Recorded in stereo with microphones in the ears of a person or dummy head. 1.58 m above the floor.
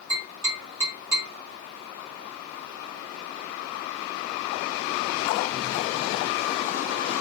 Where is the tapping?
25° right (ahead or behind), 2.5 m.